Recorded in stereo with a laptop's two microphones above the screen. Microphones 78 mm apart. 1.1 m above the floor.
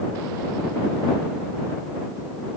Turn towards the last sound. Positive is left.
No sound to turn to.